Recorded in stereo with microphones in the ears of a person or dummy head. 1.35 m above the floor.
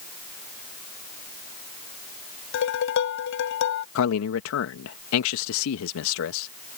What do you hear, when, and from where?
2.5 s dishes clattering: 70° left (ahead or behind)
4.0 s a man speaking: 85° left